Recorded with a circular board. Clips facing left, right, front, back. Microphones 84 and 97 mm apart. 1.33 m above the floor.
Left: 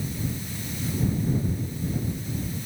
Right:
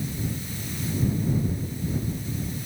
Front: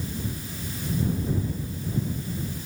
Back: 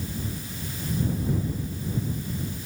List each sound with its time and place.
Only background noise.